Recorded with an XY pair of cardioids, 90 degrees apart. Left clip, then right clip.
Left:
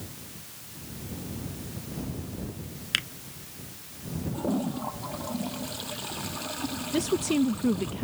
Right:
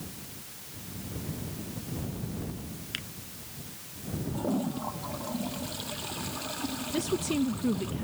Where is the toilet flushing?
10° left.